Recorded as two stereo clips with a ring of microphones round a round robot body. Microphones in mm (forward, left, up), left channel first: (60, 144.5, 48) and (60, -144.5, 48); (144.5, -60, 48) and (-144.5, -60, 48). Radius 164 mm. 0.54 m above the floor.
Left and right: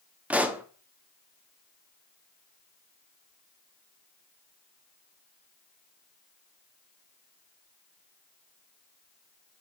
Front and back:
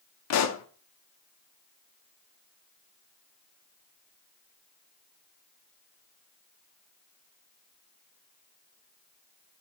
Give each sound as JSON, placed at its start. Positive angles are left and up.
{"t": 0.3, "sound": "a pop", "azimuth_deg": -5, "distance_m": 0.9}